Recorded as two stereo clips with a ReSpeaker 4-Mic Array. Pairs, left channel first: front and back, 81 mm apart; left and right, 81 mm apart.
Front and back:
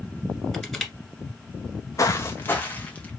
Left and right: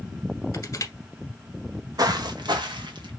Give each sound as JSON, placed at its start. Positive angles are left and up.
{"t": 0.5, "sound": "crushing", "azimuth_deg": 90, "distance_m": 1.5}
{"t": 2.0, "sound": "footsteps", "azimuth_deg": -50, "distance_m": 1.1}